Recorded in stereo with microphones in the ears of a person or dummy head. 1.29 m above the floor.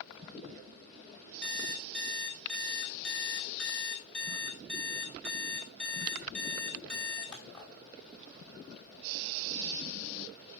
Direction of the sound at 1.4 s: 10° left (ahead or behind).